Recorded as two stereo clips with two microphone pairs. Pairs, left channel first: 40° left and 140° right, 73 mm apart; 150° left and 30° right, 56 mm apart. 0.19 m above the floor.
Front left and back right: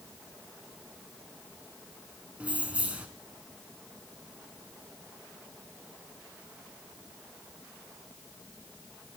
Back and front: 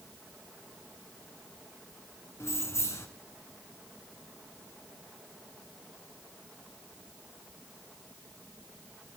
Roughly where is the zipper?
I don't hear a zipper.